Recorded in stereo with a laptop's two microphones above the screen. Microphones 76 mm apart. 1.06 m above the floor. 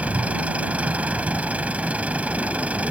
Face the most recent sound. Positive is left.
turn(degrees=-20)  # may be behind; listen again after turning